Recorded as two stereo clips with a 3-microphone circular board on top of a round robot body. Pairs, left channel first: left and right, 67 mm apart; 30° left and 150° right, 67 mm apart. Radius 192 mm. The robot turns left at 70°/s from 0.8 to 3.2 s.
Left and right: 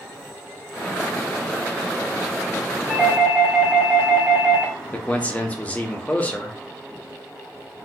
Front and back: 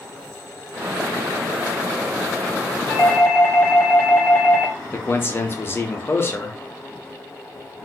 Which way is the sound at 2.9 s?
5° left.